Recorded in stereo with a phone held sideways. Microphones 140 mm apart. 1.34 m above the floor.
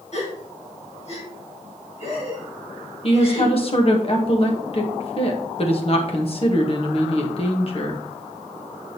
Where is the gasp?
50° left (ahead or behind), 2 m.